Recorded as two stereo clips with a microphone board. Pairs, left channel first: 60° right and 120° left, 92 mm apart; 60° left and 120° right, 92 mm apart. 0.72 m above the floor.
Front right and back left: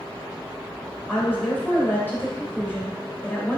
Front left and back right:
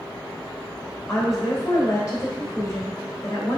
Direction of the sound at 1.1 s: 5° left.